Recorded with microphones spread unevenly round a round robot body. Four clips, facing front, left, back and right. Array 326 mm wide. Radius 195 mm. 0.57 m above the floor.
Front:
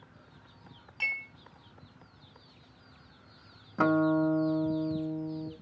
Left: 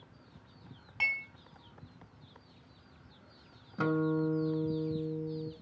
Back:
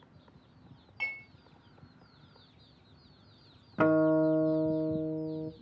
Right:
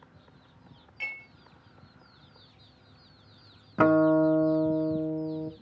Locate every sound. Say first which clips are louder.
1.0 s dishes clattering: left 5 dB, front 4 dB; 100° left, 3 m
3.8 s a guitar: right 10 dB, back 1 dB; 65° right, 0.7 m